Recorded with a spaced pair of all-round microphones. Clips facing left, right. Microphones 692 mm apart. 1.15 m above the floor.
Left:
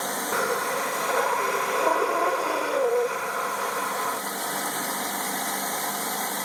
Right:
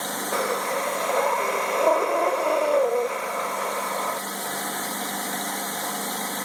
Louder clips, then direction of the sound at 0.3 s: Right 2 dB; 45° left (ahead or behind).